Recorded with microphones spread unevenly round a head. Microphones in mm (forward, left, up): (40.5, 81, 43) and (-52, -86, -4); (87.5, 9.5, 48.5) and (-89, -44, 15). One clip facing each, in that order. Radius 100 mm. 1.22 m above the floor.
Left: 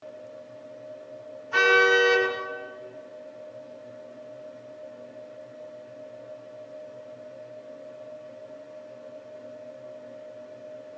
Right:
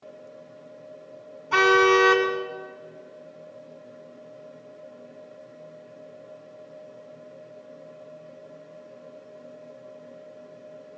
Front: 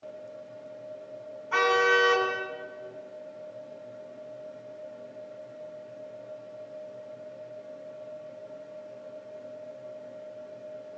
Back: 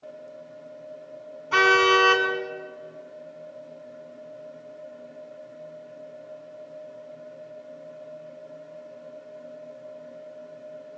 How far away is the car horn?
About 7 m.